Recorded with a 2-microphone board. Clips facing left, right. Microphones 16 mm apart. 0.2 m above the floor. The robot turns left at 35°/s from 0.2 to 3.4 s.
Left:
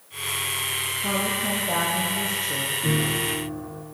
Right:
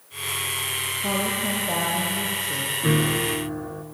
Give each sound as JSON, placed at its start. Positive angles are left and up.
{"t": 1.0, "sound": "a woman speaking", "azimuth_deg": -155, "distance_m": 5.5}
{"t": 2.8, "sound": "a piano", "side_deg": -65, "distance_m": 1.8}